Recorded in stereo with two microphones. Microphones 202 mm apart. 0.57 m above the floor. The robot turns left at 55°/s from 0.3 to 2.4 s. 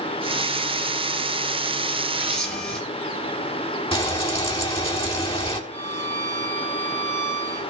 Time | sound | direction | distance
2.2 | a camera shutter | 10° right (ahead or behind) | 5 m
3.9 | frying | 25° left (ahead or behind) | 1.7 m
5.7 | a violin | 10° left (ahead or behind) | 7.5 m